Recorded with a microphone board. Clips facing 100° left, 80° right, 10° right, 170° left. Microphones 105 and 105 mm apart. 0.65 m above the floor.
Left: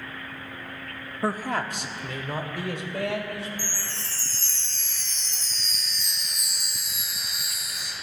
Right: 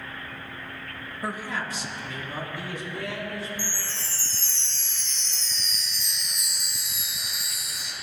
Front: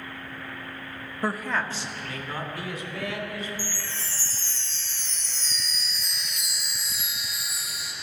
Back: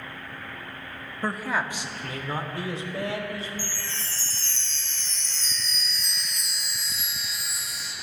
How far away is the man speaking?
About 0.6 m.